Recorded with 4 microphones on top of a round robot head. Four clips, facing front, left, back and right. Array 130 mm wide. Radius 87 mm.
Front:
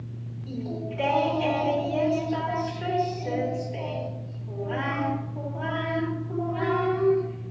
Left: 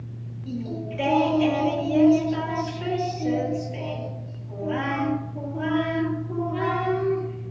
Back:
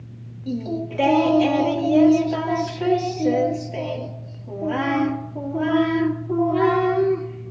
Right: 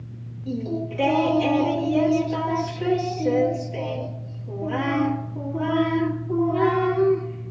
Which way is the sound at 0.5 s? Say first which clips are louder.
Right 4 dB, back 7 dB; straight behind.